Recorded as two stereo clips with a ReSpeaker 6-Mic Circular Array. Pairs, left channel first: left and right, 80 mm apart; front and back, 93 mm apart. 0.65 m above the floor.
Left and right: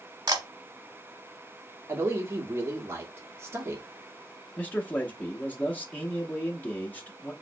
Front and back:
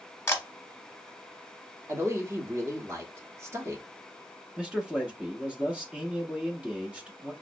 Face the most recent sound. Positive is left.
turn(degrees=120)